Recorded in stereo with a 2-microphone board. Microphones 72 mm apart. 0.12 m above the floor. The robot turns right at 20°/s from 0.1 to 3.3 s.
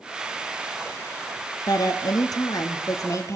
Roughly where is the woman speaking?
Left.